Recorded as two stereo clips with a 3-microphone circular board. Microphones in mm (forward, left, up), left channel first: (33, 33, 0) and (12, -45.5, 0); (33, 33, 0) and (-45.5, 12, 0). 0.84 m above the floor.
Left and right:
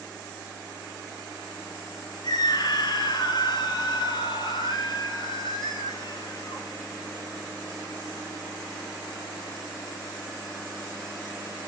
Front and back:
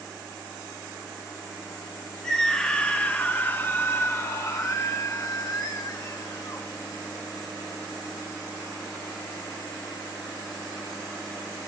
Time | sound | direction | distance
2.2 | a scream | 95° left | 1.8 m